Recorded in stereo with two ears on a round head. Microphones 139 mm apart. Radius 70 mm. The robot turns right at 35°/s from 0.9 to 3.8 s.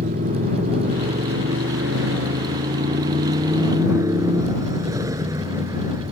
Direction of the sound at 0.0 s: 125° right.